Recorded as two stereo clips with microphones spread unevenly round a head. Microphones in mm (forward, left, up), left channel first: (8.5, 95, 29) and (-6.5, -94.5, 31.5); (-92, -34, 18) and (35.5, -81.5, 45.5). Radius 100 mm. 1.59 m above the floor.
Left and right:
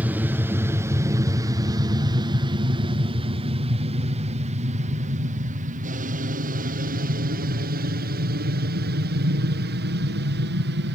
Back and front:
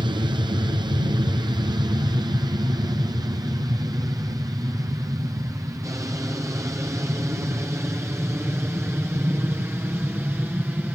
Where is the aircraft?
25° right; by 11.0 s 100° right.